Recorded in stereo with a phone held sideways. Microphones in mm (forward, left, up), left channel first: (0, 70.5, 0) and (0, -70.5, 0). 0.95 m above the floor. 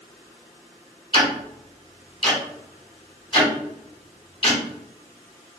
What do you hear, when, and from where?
1.1 s ticking: 35° left (ahead or behind), 1.2 m